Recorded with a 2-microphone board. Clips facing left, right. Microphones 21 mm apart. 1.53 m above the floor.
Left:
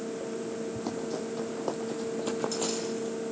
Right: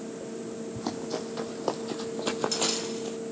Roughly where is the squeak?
No squeak in this recording.